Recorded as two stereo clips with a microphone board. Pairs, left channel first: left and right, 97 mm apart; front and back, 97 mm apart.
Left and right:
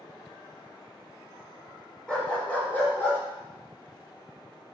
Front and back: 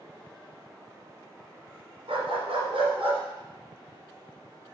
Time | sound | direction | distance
2.1 | a dog barking | 170° left | 1.8 m